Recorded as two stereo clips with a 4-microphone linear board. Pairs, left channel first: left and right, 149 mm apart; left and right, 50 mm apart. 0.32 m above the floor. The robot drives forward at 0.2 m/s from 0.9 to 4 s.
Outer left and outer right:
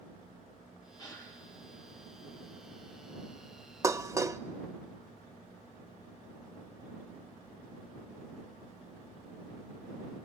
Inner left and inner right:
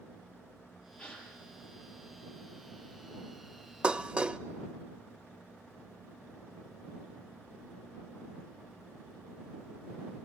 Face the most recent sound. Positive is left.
turn(degrees=-20)  # may be behind; listen again after turning